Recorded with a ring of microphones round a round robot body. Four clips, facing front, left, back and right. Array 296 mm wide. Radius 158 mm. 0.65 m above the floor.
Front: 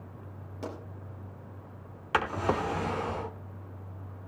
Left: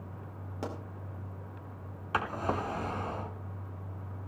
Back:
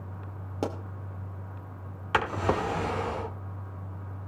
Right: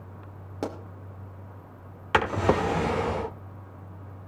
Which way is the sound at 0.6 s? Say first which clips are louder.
Right 6 dB, back 7 dB; 145° right.